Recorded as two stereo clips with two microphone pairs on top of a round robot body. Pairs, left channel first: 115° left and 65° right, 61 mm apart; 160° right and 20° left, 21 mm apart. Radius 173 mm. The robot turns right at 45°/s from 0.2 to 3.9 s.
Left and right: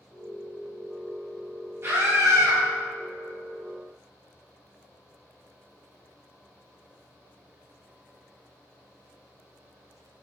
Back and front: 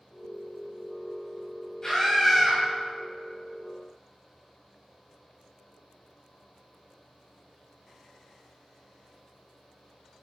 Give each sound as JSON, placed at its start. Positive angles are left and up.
{"t": 1.8, "sound": "a scream", "azimuth_deg": -105, "distance_m": 4.5}